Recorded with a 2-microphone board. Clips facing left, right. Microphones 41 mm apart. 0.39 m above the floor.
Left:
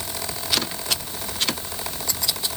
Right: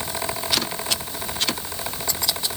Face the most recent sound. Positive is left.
No sound to turn to.